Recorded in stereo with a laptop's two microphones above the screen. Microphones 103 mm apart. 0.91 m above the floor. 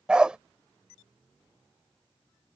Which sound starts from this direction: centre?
A dog barking, at 0.1 s.